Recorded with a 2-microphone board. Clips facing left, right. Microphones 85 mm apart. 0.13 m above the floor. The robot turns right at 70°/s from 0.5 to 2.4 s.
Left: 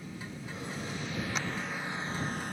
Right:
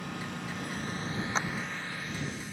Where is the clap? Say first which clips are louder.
Right 5 dB; 35° right (ahead or behind); by 1.5 s 25° right (ahead or behind).